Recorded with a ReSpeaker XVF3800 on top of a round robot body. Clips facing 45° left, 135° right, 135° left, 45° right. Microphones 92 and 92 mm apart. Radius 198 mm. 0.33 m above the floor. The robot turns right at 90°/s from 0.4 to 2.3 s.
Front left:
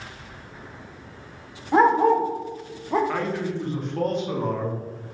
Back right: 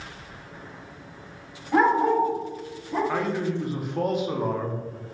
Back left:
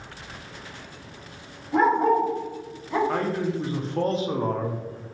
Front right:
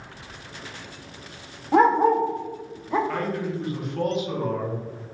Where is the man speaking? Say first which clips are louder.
Even, back left 2 dB; 150° left, 0.9 m.